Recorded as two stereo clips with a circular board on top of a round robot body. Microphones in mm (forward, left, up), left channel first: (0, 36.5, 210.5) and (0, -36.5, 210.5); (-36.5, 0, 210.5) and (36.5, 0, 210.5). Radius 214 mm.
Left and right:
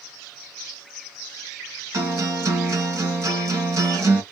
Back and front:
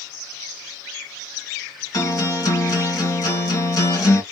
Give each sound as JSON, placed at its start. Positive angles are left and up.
{"t": 1.9, "sound": "a guitar", "azimuth_deg": -135, "distance_m": 1.8}